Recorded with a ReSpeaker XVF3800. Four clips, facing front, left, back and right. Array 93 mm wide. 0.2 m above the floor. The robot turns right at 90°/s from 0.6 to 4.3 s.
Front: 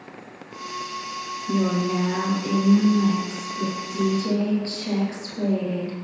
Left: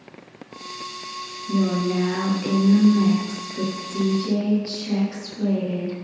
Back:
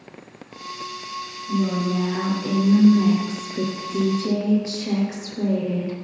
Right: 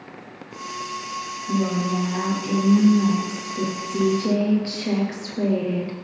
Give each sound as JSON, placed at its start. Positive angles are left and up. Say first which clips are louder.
{"t": 1.5, "sound": "a woman speaking", "louder": "left 1 dB, even", "azimuth_deg": 0, "distance_m": 4.0}